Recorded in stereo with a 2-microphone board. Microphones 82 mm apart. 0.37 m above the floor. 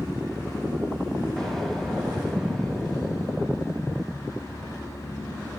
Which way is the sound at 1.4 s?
5° left (ahead or behind).